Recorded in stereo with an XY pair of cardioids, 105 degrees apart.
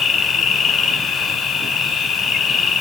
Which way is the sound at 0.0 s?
50° left.